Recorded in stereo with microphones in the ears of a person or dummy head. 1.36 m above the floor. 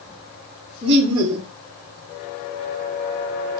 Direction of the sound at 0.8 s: 30° right (ahead or behind).